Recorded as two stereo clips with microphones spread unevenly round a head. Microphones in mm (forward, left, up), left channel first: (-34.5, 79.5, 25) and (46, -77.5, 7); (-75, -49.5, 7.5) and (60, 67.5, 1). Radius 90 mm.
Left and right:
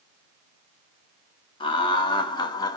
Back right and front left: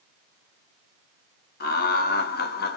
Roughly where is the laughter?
Behind.